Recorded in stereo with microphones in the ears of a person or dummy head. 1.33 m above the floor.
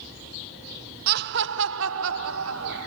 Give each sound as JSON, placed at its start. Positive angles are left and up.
{"t": 1.1, "sound": "laughter", "side_deg": -55, "distance_m": 0.6}